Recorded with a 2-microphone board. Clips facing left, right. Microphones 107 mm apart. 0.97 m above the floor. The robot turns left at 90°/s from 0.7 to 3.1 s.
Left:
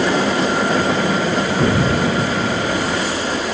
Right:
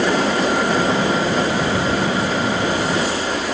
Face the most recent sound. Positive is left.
turn(degrees=5)